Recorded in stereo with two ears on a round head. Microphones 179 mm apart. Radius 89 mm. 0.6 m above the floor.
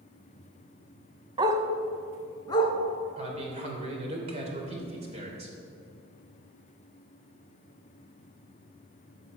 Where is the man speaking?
35° right (ahead or behind), 3 m.